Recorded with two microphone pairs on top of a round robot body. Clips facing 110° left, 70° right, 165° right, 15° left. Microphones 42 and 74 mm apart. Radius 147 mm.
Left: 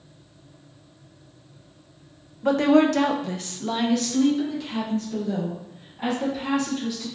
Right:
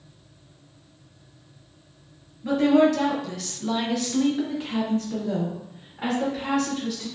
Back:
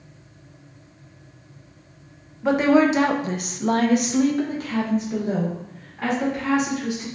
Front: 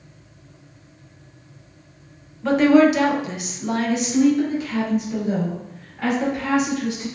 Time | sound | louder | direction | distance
2.4 | a woman speaking | left 1 dB, front 3 dB | 120° left | 0.8 m